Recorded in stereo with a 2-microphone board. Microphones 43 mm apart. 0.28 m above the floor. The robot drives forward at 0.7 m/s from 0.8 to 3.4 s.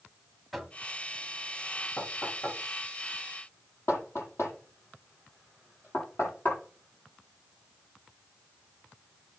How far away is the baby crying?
No baby crying in this recording.